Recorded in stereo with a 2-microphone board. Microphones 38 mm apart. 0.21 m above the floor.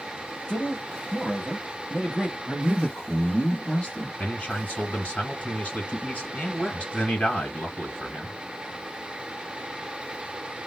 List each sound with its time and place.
0.5 s a man speaking: 25° left (ahead or behind), 1.1 m
2.5 s a man speaking: 25° left (ahead or behind), 1.6 m
4.2 s a man speaking: 35° left (ahead or behind), 2.5 m